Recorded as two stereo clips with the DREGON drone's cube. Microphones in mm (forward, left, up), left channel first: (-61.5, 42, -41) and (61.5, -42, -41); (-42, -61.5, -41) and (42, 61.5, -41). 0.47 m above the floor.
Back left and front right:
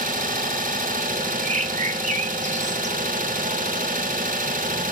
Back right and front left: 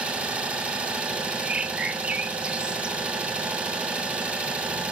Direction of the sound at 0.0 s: 25° right.